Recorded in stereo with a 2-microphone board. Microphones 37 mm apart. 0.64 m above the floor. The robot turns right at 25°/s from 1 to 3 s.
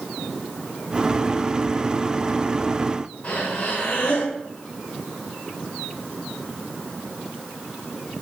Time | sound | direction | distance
3.2 | breathing | 35° left (ahead or behind) | 5 m